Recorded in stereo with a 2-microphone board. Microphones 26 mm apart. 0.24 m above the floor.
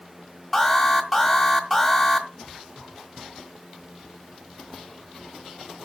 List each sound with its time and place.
0.5 s an alarm: 5° left (ahead or behind), 1.4 m